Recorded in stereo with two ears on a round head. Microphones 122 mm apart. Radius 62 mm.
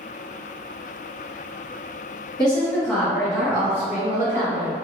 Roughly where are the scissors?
I don't hear scissors.